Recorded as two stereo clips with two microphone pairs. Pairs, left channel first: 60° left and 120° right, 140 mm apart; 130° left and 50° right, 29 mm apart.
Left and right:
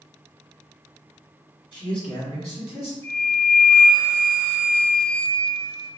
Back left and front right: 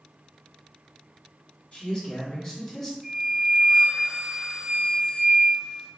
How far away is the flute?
About 1.6 m.